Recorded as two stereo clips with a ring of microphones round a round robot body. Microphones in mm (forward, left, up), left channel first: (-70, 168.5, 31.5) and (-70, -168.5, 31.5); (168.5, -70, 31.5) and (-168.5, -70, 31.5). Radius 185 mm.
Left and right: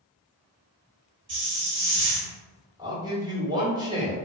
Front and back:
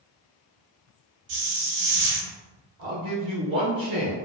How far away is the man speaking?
About 1.3 m.